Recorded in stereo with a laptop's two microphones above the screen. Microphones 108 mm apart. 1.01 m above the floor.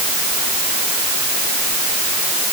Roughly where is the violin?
I don't hear a violin.